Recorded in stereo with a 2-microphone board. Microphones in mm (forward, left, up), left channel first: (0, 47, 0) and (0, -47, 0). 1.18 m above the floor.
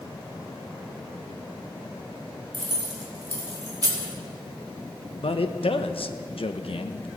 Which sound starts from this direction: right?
Keys jangling, at 2.5 s.